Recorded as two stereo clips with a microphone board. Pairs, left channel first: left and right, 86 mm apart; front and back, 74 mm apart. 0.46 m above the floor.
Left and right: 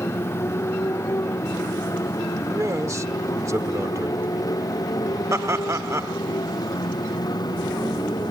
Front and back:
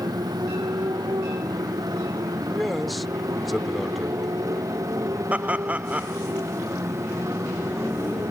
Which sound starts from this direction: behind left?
A motorcycle, at 0.0 s.